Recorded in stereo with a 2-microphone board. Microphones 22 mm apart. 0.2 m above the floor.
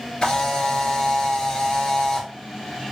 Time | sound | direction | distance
0.2 | a camera shutter | 30° left (ahead or behind) | 1.4 m